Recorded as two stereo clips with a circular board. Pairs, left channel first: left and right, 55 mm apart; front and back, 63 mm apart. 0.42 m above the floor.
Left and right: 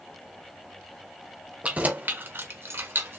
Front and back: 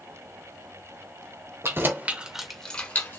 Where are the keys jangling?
150° right, 1.0 m; by 3.2 s 50° right, 1.1 m.